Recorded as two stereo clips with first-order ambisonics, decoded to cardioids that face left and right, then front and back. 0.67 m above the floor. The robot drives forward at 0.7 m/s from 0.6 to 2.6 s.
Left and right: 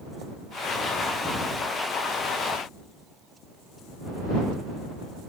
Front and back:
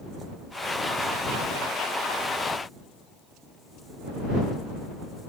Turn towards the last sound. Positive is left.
No sound to turn to.